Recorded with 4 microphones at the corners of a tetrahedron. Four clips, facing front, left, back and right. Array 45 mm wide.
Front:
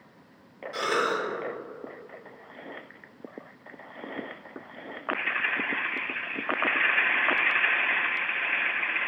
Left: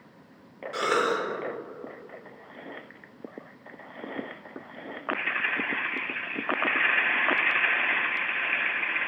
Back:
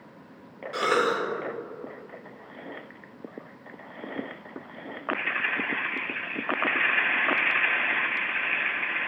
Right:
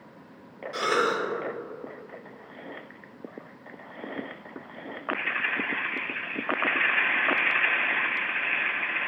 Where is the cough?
145° left, 0.9 m.